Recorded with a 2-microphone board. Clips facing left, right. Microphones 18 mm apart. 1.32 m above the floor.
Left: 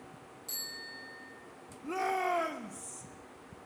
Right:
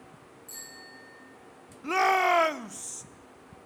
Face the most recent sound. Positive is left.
turn(degrees=-55)  # may be behind; listen again after turning